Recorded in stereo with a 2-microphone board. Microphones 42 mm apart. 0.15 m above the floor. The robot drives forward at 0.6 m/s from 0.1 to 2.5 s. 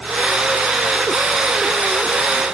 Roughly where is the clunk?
No clunk in this recording.